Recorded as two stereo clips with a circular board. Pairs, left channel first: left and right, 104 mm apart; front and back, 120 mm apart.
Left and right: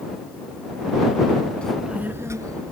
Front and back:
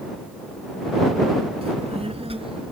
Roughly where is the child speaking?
Behind.